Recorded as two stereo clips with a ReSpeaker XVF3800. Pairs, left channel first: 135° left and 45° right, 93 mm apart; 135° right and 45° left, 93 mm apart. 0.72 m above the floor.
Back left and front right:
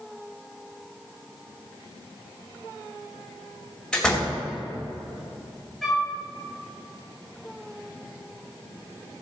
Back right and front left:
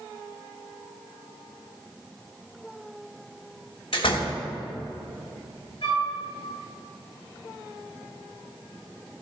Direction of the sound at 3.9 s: 140° right.